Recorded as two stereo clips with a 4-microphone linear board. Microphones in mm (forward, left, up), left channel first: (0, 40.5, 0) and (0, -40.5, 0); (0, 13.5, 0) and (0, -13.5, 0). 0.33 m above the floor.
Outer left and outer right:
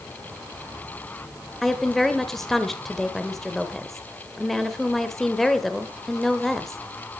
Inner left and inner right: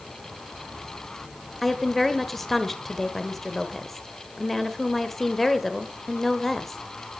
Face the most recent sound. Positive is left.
turn(degrees=5)  # may be behind; listen again after turning